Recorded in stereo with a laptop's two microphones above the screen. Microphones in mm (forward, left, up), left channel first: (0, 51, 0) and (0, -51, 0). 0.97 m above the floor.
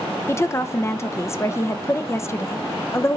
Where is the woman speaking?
25° left (ahead or behind), 0.6 m.